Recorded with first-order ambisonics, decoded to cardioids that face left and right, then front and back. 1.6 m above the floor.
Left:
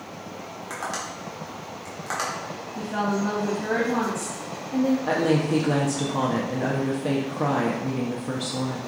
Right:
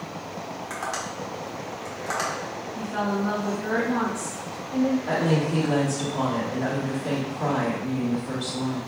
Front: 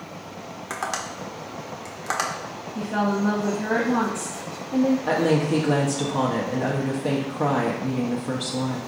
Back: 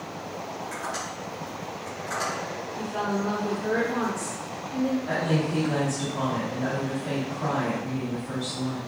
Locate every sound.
0.7 s tapping: straight ahead, 0.9 m
2.8 s a woman speaking: 15° left, 0.7 m
5.1 s a woman speaking: 40° left, 0.9 m